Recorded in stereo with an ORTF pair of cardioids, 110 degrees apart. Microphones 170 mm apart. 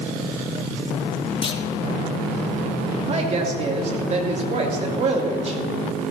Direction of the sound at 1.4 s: 30° left.